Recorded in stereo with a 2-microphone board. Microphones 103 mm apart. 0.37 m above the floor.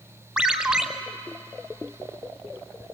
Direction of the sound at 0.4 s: 10° right (ahead or behind).